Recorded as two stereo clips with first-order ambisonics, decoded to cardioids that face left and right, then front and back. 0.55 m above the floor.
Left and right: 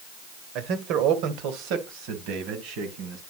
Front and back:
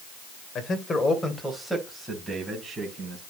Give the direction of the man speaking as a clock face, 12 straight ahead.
2 o'clock.